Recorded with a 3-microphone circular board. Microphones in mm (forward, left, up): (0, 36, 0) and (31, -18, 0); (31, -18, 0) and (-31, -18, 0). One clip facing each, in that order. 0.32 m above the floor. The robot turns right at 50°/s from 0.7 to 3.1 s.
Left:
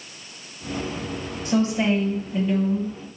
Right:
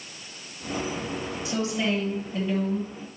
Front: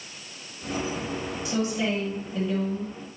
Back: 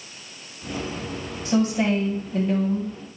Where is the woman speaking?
150° left, 1.7 m; by 3.0 s 135° right, 1.7 m.